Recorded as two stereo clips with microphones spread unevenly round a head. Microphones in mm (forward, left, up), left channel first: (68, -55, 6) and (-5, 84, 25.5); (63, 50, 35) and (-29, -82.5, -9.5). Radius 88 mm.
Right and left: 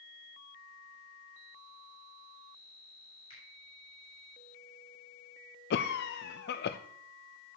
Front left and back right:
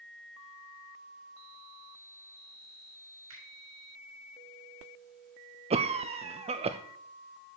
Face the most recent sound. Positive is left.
turn(degrees=-75)